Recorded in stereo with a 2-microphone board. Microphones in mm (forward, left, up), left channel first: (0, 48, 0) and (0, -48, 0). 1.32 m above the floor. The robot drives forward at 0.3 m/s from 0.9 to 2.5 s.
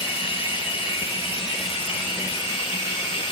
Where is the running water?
65° left (ahead or behind), 2.5 m; by 3.3 s 55° left (ahead or behind), 2.5 m.